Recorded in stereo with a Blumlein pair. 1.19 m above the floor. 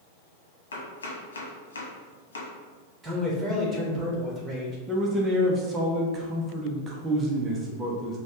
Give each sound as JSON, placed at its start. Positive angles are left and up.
{"t": 0.7, "sound": "chopping", "azimuth_deg": 70, "distance_m": 1.1}
{"t": 3.0, "sound": "a man speaking", "azimuth_deg": -15, "distance_m": 1.6}
{"t": 4.9, "sound": "a man speaking", "azimuth_deg": -15, "distance_m": 0.8}